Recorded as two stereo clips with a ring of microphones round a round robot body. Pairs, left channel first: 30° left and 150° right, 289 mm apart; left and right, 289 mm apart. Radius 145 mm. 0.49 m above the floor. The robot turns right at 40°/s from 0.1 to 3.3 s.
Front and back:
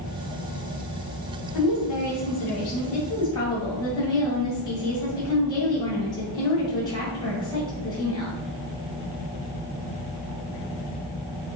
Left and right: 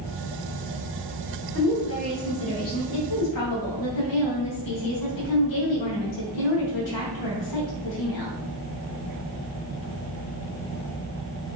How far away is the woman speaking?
About 3 m.